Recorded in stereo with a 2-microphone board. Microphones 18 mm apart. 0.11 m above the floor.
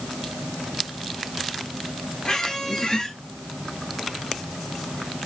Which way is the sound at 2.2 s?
45° left (ahead or behind).